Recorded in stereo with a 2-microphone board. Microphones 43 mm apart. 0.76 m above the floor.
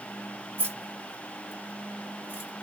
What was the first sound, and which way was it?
Keys jangling, 60° right (ahead or behind).